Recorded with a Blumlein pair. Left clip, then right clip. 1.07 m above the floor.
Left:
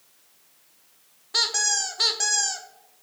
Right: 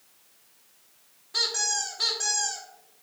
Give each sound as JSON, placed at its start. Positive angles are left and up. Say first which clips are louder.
{"t": 1.3, "sound": "a squeak", "louder": "left 3 dB", "azimuth_deg": 70, "distance_m": 0.5}